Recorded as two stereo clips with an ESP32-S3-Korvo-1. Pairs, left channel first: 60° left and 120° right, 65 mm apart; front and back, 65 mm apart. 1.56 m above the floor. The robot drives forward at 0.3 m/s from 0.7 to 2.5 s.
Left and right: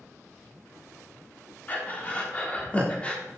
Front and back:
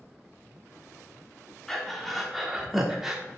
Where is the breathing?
75° left, 1.2 m; by 3.2 s 95° left, 1.2 m.